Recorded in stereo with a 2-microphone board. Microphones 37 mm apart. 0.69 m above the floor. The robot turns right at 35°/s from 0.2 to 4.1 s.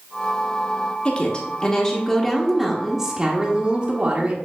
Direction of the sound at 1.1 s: 135° left.